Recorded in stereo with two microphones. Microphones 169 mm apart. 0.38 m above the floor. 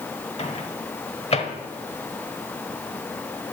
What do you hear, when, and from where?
0.4 s a microwave: 40° left (ahead or behind), 1.0 m